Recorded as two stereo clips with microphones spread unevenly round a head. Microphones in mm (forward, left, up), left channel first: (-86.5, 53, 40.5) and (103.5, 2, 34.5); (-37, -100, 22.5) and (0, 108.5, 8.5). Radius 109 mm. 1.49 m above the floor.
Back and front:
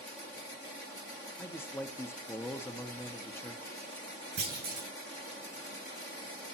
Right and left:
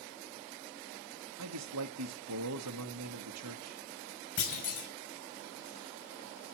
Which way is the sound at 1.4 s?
85° left.